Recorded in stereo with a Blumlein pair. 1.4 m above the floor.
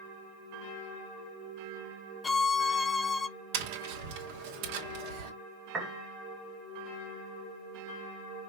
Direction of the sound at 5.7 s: 10° right.